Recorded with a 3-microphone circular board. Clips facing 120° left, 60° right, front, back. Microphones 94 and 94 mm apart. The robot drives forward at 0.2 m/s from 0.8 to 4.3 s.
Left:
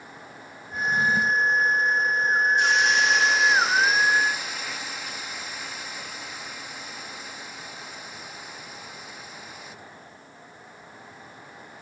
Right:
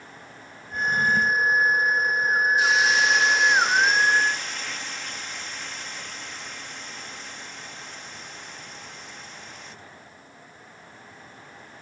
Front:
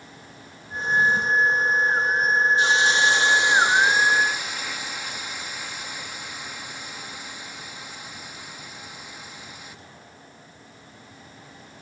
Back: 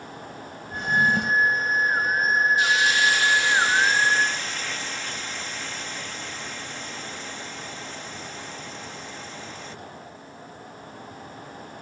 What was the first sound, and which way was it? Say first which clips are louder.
A drawer: right 1 dB, front 1 dB; 160° right.